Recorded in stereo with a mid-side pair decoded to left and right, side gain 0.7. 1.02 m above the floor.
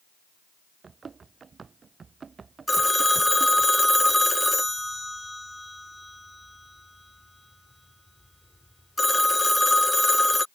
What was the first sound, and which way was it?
Running footsteps, 25° right.